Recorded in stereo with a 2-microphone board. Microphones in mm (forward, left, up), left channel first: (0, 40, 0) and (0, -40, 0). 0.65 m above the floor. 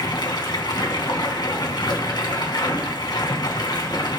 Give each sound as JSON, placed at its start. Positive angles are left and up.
{"t": 0.0, "sound": "running water", "side_deg": 65, "distance_m": 2.0}